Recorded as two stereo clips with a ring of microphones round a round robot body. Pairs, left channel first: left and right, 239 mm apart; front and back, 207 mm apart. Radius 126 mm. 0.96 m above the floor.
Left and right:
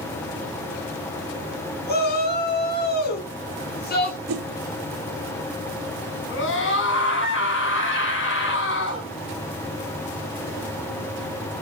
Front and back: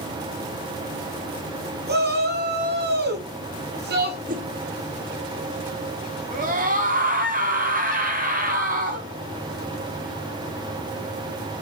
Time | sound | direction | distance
1.9 | a shout | 140° left | 10 m
4.3 | a whoosh | 120° right | 1.0 m
6.3 | a scream | 130° left | 8 m